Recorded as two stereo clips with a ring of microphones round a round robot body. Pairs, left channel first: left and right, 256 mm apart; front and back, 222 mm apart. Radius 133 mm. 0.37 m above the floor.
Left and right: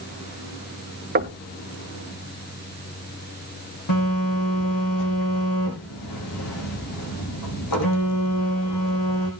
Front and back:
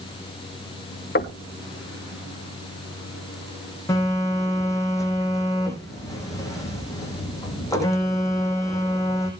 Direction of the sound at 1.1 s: 40° right.